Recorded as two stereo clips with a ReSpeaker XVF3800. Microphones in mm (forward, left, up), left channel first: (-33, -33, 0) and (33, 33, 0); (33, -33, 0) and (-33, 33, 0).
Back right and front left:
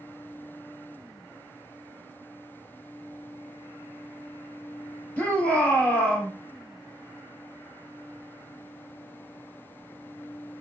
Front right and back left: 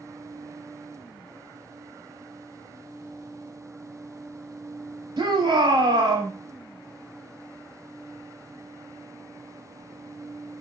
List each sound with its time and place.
5.2 s a shout: 150° left, 3 m